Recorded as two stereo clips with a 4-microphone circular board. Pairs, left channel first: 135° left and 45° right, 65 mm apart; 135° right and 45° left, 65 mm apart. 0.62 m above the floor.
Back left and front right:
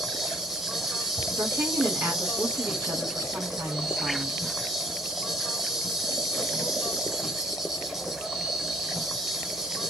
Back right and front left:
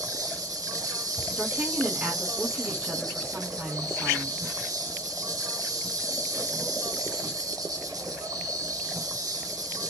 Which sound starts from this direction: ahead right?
A woman speaking, at 1.4 s.